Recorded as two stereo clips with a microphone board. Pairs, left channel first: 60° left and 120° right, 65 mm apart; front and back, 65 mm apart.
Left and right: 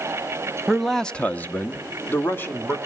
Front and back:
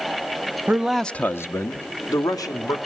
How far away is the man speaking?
About 0.7 m.